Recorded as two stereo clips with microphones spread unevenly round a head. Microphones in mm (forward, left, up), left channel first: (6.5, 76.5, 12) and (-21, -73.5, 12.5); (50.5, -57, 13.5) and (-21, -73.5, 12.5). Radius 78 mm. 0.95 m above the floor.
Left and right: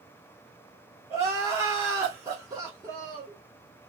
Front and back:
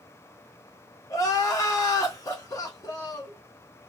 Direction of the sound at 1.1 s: 30° right.